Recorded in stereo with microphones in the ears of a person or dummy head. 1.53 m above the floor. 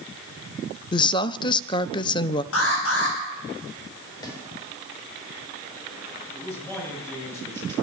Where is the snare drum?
20° left (ahead or behind), 7 m.